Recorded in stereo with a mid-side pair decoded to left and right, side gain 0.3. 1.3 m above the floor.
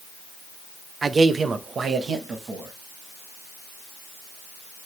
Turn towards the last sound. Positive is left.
turn(degrees=-80)